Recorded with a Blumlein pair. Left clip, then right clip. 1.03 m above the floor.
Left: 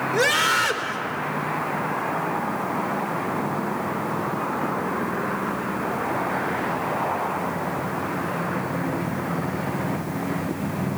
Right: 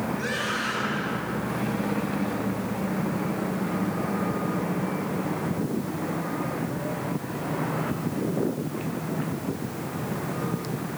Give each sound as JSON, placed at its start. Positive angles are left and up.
{"t": 0.1, "sound": "a scream", "azimuth_deg": 45, "distance_m": 3.5}